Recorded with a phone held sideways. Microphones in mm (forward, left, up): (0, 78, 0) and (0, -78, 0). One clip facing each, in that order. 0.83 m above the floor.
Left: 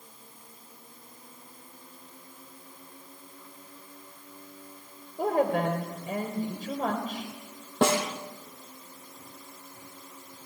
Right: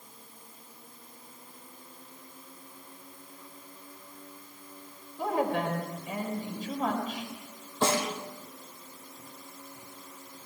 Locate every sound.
5.2 s a woman speaking: 50° left (ahead or behind), 4 m
7.8 s a snare drum: 75° left (ahead or behind), 5.5 m